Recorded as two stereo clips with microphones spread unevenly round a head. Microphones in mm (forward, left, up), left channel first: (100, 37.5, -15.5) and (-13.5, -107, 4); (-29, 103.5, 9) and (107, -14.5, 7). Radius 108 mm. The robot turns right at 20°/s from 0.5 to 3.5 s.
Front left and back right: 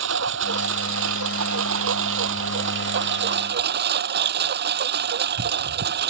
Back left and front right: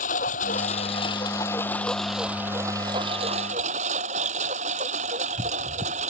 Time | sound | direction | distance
0.0 | a lawn mower | 160° right | ?